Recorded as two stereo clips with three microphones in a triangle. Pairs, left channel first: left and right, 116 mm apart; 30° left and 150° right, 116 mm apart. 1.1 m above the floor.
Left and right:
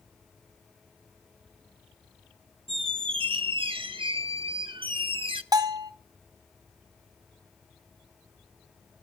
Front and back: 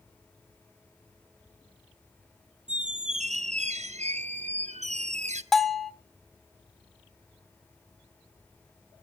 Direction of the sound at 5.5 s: 60° right.